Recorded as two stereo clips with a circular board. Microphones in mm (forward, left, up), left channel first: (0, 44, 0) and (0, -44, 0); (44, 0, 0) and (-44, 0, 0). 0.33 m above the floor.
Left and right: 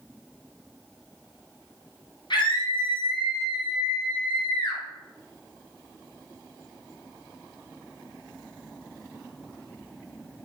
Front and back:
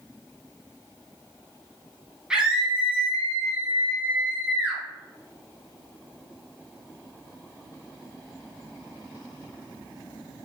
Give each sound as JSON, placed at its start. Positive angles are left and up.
{"t": 2.3, "sound": "a scream", "azimuth_deg": 100, "distance_m": 2.5}